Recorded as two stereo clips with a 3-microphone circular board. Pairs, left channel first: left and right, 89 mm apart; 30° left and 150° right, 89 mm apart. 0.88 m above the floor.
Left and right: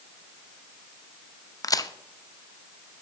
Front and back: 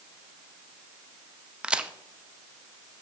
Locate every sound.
1.6 s a crack: 135° left, 0.5 m